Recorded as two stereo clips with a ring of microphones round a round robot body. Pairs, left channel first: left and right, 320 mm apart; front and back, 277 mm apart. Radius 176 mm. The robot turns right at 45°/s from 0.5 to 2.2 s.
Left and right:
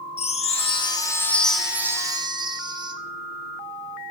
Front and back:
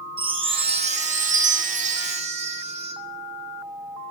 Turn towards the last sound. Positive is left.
turn(degrees=-150)